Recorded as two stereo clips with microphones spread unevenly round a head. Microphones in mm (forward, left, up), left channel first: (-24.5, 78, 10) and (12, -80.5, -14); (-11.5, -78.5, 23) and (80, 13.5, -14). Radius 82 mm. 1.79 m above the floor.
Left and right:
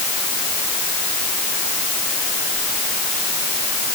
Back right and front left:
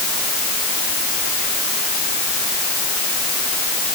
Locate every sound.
Only background noise.